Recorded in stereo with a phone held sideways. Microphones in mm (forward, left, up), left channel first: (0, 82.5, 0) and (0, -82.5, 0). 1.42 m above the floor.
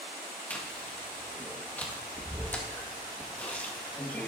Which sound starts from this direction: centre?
Chewing, at 0.5 s.